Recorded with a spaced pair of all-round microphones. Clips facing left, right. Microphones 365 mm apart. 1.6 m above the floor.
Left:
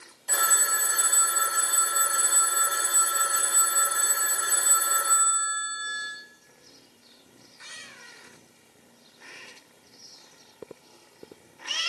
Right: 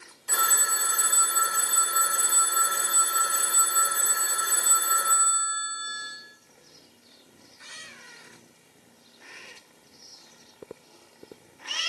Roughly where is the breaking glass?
No breaking glass in this recording.